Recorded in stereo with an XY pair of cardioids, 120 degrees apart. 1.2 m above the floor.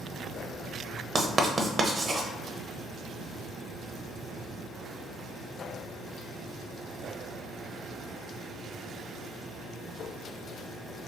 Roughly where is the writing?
Ahead right.